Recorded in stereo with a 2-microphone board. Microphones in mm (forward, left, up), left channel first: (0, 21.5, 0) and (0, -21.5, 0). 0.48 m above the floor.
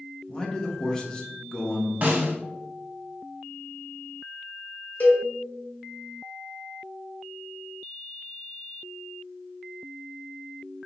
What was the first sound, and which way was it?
A man speaking, 15° left (ahead or behind).